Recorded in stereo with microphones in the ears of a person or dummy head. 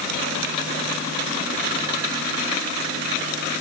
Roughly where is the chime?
I don't hear a chime.